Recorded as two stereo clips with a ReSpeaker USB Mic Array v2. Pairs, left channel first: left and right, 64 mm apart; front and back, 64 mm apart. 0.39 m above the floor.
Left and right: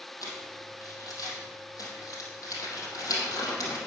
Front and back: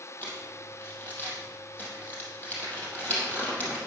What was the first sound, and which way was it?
Crumpling, 60° left.